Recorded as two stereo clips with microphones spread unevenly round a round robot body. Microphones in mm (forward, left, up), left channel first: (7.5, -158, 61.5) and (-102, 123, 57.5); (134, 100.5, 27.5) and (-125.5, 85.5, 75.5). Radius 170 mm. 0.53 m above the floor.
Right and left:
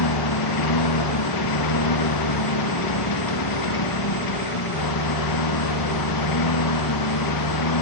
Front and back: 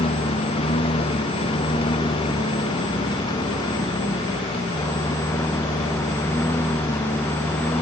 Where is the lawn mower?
70° right; by 7.8 s 80° right.